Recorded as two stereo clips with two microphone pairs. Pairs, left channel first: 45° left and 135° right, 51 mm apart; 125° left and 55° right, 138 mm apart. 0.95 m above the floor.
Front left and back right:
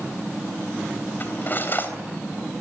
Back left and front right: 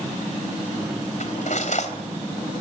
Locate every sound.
1.2 s cutlery clinking: 95° left, 3.5 m